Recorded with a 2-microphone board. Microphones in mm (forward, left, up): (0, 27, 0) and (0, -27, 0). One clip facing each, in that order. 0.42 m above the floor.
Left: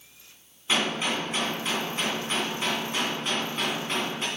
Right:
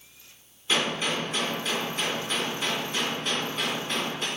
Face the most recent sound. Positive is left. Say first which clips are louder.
# even
turn(degrees=20)  # may be behind; listen again after turning